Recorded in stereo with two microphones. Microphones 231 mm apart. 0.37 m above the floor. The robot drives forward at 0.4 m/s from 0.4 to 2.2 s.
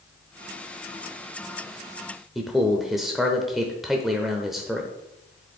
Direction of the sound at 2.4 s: Centre (ahead or behind).